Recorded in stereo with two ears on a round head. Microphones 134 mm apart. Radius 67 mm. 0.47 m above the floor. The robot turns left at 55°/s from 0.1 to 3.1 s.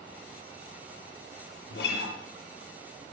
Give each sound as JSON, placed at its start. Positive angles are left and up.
{"t": 1.7, "sound": "a guitar", "side_deg": 80, "distance_m": 7.0}